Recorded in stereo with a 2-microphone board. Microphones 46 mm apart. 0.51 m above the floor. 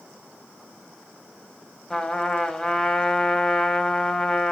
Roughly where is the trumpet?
Centre.